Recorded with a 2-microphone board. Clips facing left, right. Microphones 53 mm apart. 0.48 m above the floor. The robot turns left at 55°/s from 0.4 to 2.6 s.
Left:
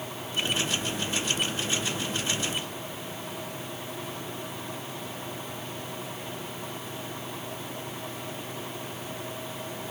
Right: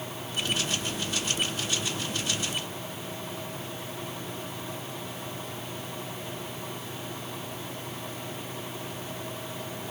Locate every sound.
Only background noise.